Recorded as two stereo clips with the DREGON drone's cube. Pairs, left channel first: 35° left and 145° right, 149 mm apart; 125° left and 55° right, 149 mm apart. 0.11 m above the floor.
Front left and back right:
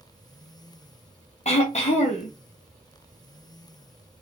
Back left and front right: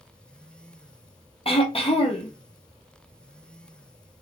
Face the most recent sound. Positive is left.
turn(degrees=75)